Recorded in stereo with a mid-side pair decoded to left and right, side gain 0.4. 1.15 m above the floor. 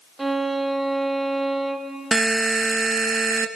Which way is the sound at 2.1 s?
25° right.